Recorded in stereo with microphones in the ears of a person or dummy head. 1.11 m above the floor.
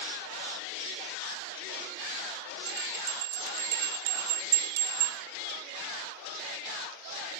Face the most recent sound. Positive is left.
turn(degrees=-50)  # may be behind; listen again after turning